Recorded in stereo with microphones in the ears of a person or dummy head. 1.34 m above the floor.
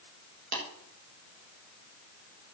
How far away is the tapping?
About 6.5 m.